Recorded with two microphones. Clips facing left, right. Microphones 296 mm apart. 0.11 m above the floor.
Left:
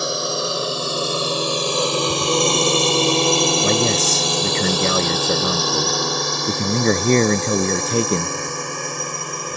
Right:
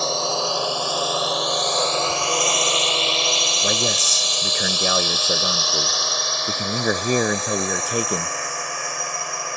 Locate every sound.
0.0 s a drone: 15° left (ahead or behind); by 9.6 s 45° left (ahead or behind)
3.6 s a man speaking: 25° left (ahead or behind)